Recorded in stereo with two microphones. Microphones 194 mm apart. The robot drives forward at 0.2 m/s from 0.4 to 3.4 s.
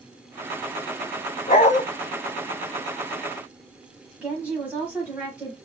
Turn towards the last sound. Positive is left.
turn(degrees=-5)  # may be behind; listen again after turning